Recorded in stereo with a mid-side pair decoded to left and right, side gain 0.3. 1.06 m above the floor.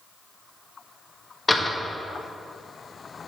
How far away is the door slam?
About 1.2 m.